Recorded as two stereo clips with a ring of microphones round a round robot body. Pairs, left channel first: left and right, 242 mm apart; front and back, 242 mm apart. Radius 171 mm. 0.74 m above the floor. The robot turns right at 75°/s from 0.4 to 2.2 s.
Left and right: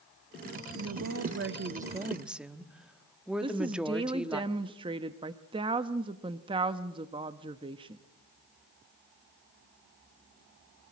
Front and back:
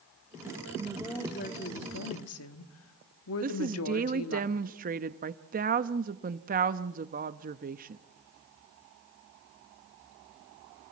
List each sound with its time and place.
0.8 s a woman speaking: 110° right, 1.4 m; by 4.4 s 5° right, 1.4 m
3.4 s a woman speaking: 150° right, 0.6 m